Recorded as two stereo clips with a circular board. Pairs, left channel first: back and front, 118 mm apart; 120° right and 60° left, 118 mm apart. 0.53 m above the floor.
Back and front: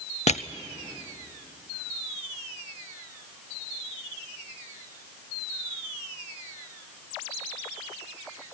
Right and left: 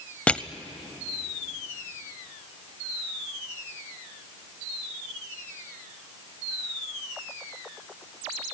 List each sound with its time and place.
0.3 s crushing: 160° left, 0.6 m